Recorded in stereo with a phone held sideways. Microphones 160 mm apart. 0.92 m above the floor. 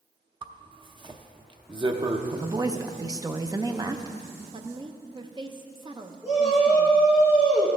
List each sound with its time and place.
0.4 s a zipper: 30° right (ahead or behind), 0.6 m
2.3 s a woman speaking: 25° right (ahead or behind), 0.5 m
4.5 s a woman speaking: 30° right (ahead or behind), 0.6 m
6.2 s a shout: centre (ahead or behind), 1.9 m